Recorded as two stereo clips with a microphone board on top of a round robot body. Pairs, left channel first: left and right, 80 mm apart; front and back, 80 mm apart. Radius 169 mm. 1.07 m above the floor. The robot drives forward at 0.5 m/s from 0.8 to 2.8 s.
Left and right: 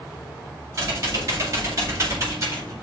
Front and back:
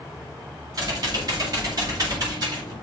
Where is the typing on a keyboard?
135° right, 7.5 m; by 2.7 s 140° right, 8.5 m.